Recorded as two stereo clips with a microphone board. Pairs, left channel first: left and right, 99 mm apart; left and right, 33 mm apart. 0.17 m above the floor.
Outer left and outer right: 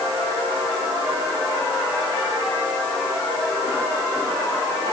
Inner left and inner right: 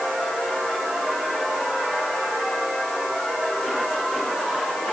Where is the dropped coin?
No dropped coin in this recording.